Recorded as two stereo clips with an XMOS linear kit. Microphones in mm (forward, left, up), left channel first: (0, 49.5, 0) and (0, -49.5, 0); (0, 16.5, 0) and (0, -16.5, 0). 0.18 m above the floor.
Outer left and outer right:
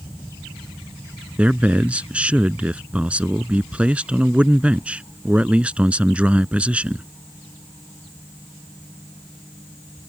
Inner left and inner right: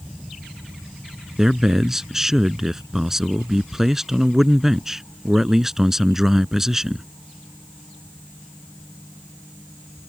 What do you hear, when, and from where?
1.4 s a man speaking: 10° right (ahead or behind)